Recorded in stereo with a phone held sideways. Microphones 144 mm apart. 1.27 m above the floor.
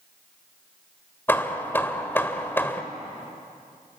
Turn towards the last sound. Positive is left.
turn(degrees=15)  # may be behind; listen again after turning